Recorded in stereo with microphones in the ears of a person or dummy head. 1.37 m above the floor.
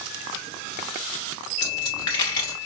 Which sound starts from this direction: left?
A dropped coin, at 1.6 s.